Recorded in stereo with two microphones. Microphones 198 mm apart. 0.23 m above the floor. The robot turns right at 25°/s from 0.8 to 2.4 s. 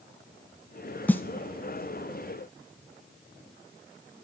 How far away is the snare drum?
About 0.6 m.